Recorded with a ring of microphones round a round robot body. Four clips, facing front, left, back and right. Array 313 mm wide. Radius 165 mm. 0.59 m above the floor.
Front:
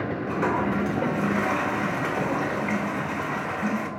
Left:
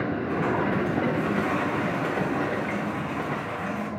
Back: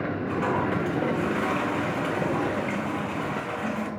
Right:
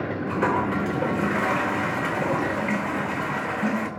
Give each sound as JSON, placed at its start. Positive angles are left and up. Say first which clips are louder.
{"t": 0.3, "sound": "a toilet flushing", "louder": "right 3 dB, front 1 dB", "azimuth_deg": -75, "distance_m": 1.9}